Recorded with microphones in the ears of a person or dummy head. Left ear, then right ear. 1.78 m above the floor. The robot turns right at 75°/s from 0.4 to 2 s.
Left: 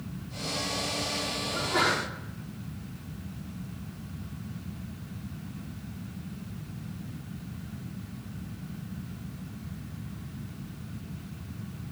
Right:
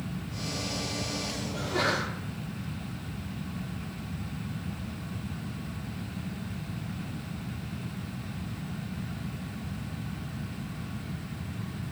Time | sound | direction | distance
1.5 | a sneeze | 120° left | 4.5 m